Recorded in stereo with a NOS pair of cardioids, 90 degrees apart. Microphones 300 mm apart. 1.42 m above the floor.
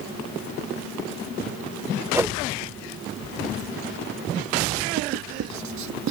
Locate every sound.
2.1 s a whoosh: 10° right
5.0 s writing: 65° right